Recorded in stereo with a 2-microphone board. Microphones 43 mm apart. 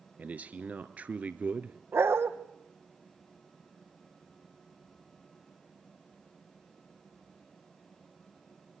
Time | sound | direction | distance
0.2 | a man speaking | 35° right (ahead or behind) | 1.3 m
1.9 | a dog barking | 75° right (ahead or behind) | 1.9 m